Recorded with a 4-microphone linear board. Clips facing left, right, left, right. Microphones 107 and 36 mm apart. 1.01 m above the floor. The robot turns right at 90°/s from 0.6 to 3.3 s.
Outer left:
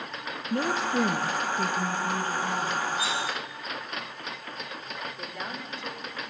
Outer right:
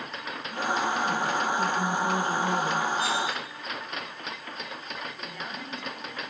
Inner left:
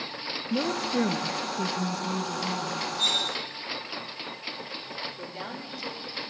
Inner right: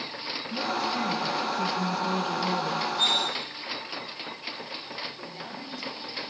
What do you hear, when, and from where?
0.5 s a woman speaking: 65° left, 0.8 m; by 2.9 s 90° right, 0.8 m
3.0 s cutlery clinking: 50° right (ahead or behind), 4.5 m; by 3.2 s 30° right (ahead or behind), 4.5 m
5.2 s a woman speaking: 5° left (ahead or behind), 3 m